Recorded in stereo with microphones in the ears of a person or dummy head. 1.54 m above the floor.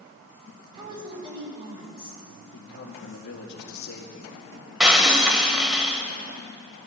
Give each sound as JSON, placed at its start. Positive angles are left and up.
{"t": 0.7, "sound": "a woman speaking", "side_deg": -25, "distance_m": 6.0}
{"t": 2.5, "sound": "a man speaking", "side_deg": 60, "distance_m": 2.0}
{"t": 4.8, "sound": "breaking glass", "side_deg": 0, "distance_m": 2.5}